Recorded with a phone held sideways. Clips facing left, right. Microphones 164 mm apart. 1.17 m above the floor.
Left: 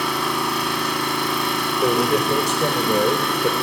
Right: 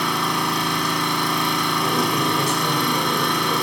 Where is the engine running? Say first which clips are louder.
Even; 5° left (ahead or behind), 2 m.